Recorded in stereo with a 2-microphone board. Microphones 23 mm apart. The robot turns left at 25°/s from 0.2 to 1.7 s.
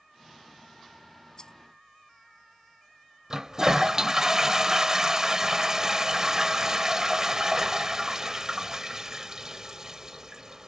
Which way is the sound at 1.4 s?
40° left (ahead or behind).